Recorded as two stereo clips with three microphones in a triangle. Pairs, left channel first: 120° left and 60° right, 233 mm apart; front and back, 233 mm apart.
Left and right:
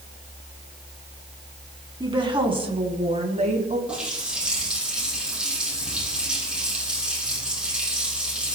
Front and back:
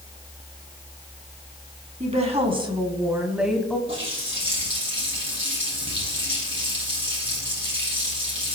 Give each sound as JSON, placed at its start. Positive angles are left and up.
{"t": 2.0, "sound": "a woman speaking", "azimuth_deg": -125, "distance_m": 2.0}
{"t": 3.9, "sound": "a running tap", "azimuth_deg": -145, "distance_m": 5.0}